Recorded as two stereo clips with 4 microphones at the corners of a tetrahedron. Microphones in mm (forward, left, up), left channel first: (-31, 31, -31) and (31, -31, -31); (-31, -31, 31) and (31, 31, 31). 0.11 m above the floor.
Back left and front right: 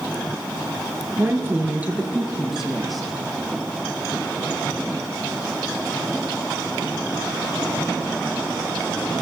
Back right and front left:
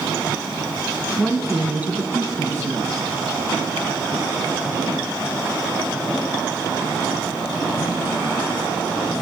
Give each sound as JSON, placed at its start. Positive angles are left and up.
{"t": 1.2, "sound": "a woman speaking", "azimuth_deg": -55, "distance_m": 1.8}